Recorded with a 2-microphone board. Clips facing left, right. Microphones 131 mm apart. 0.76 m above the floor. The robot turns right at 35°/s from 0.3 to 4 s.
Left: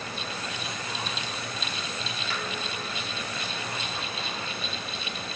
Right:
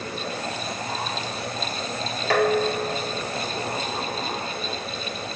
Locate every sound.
2.3 s dishes clattering: 85° right; by 3.9 s 30° right